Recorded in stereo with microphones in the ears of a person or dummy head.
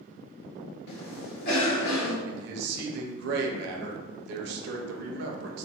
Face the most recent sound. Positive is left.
turn(degrees=-65)  # may be behind; listen again after turning